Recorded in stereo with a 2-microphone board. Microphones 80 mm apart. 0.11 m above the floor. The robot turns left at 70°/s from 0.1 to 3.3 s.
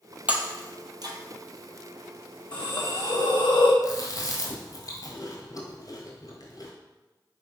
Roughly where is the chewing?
Left.